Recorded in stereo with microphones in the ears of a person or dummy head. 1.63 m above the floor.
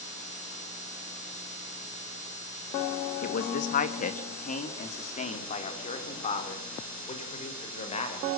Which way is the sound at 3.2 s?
50° left (ahead or behind).